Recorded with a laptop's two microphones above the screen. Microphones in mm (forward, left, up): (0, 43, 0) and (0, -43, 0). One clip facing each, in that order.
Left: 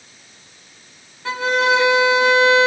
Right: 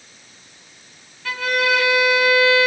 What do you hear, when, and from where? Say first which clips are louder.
1.2 s a violin: left 3 dB; 25° left (ahead or behind), 1.0 m